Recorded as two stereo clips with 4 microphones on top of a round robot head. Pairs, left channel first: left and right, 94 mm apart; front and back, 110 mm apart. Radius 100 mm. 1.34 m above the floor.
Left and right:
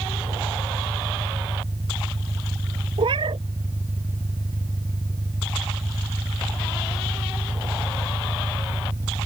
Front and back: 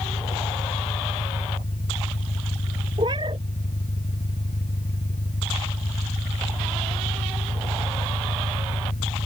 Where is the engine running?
25° right.